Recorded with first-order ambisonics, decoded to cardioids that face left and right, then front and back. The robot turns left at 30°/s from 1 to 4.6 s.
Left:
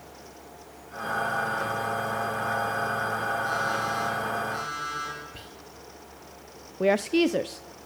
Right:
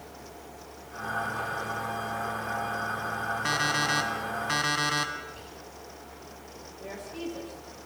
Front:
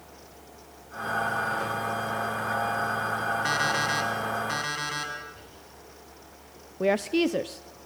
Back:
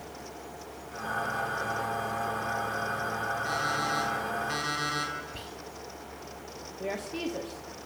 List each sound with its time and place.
3.5 s an alarm clock: 50° right, 5 m; by 5.1 s 85° right, 5 m
5.3 s whispering: 155° left, 1.8 m
6.8 s a woman speaking: 60° left, 0.6 m